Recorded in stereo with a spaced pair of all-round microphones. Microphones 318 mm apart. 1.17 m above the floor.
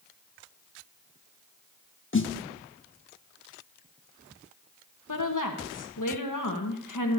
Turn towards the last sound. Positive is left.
turn(degrees=75)  # may be behind; listen again after turning